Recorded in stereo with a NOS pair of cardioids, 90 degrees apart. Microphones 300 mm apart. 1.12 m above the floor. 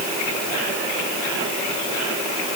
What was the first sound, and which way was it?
Only background noise.